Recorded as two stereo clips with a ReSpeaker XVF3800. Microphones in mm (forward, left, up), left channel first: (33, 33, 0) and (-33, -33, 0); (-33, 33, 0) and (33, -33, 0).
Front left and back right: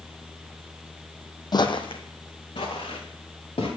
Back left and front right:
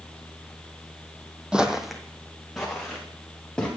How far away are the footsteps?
About 0.7 m.